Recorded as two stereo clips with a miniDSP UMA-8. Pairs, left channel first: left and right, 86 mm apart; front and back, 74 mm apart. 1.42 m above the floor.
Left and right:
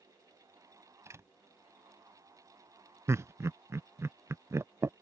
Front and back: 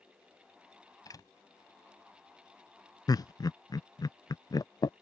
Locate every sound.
1.1 s a door slam: 35° right
3.1 s laughter: 35° right